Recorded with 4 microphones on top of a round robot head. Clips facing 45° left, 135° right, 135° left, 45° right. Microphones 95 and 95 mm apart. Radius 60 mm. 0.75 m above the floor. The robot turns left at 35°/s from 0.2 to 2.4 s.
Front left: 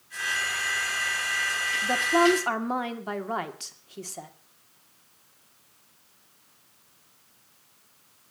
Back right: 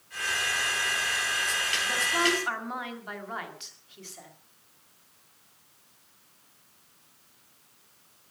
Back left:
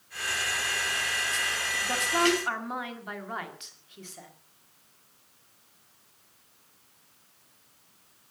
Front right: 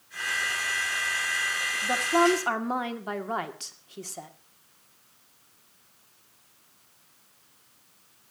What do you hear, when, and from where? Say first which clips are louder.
1.8 s a woman speaking: front left 8 dB, front right 4 dB; 25° left, 2 m; by 4.3 s straight ahead, 2 m